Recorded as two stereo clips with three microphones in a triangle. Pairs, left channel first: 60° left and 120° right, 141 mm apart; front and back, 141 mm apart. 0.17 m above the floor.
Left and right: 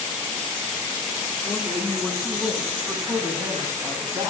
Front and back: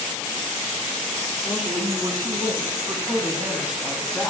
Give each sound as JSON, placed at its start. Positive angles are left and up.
{"t": 1.4, "sound": "a woman speaking", "azimuth_deg": 145, "distance_m": 2.5}